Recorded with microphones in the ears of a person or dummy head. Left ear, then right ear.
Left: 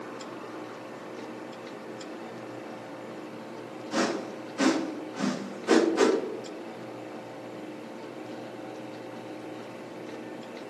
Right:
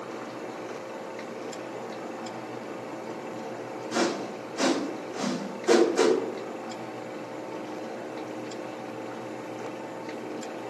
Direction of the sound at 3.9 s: 15° right (ahead or behind).